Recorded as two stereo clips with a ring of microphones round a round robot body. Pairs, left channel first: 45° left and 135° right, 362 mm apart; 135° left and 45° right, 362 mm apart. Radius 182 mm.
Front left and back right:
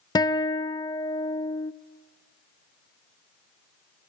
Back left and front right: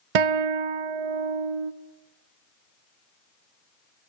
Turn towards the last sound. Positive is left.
turn(degrees=-35)